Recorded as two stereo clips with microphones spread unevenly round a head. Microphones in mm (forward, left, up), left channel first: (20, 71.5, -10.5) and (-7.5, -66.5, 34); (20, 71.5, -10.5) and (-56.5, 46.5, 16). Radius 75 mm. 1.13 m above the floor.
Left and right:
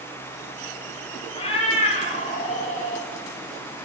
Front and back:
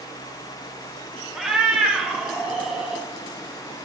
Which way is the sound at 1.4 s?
140° left.